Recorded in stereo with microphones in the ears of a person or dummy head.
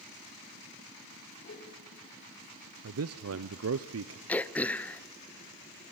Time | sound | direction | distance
1.4 | a whoosh | 55° left (ahead or behind) | 4 m
2.8 | a man speaking | 70° right (ahead or behind) | 0.7 m
4.3 | throat clearing | 10° left (ahead or behind) | 0.5 m